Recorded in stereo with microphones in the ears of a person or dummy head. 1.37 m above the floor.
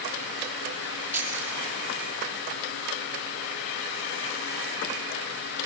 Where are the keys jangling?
15° right (ahead or behind), 2.5 m.